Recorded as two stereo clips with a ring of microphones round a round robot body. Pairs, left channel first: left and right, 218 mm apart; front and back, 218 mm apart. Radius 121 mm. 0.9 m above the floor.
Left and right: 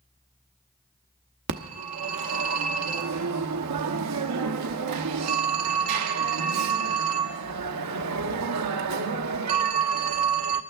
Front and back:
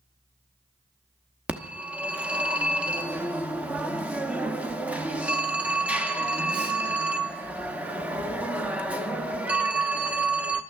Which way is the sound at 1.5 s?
95° right.